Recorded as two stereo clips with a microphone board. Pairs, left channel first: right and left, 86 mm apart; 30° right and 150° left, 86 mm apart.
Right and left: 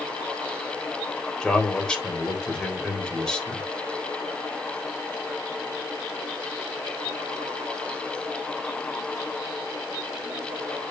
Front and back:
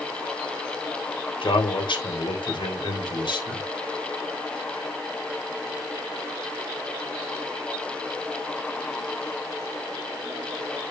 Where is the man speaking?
10° right, 3.5 m.